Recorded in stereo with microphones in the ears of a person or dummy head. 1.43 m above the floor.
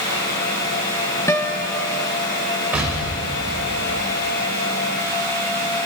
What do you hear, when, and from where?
1.3 s a guitar: 15° left (ahead or behind), 1.1 m
2.7 s an explosion: 10° right (ahead or behind), 3.5 m